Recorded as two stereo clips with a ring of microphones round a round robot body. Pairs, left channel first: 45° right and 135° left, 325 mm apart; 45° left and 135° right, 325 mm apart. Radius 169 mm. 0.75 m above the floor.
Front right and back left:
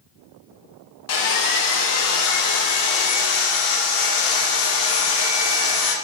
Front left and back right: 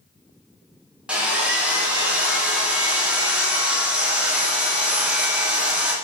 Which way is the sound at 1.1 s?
50° right.